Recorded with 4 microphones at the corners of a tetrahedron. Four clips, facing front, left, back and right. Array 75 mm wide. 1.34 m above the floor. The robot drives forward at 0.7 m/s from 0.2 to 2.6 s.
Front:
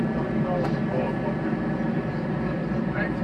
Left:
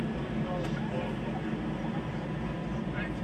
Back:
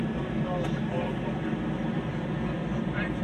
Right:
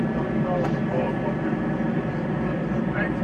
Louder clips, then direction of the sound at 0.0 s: Right 9 dB, front 5 dB; 60° right.